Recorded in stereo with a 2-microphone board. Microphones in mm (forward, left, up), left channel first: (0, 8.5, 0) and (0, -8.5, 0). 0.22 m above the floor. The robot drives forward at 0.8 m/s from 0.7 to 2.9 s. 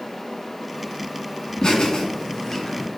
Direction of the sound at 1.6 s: 55° left (ahead or behind).